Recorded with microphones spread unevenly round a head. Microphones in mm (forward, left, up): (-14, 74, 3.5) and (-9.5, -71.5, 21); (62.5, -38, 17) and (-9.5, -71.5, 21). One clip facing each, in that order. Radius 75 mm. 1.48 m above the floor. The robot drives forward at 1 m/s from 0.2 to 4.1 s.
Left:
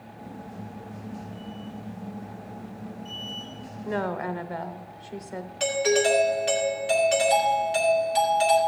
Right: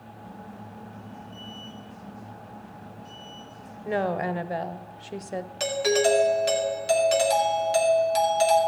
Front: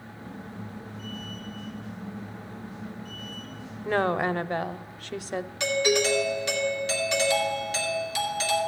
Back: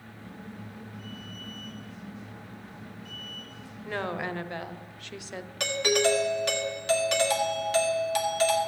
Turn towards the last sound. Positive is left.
turn(degrees=-125)